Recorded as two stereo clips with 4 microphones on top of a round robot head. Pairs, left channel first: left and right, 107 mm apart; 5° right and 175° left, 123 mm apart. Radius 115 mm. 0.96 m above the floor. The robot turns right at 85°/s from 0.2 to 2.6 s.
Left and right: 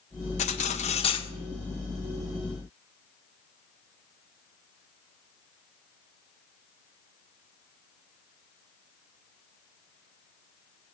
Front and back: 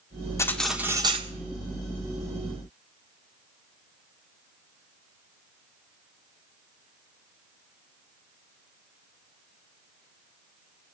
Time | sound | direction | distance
0.4 | cutlery clinking | 65° left | 1.6 m